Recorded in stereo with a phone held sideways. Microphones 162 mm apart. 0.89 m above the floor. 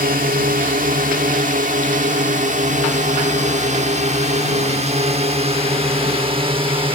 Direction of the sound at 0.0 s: 60° right (ahead or behind).